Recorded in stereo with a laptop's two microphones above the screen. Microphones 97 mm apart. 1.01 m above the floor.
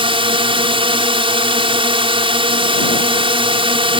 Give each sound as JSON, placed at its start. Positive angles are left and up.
{"t": 0.0, "sound": "a drone", "side_deg": -65}